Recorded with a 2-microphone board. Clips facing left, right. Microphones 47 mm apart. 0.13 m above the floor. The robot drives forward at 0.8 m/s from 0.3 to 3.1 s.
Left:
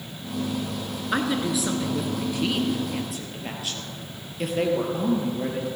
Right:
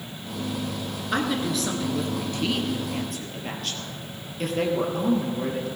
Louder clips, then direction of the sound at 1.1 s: Left 1 dB; 10° left (ahead or behind).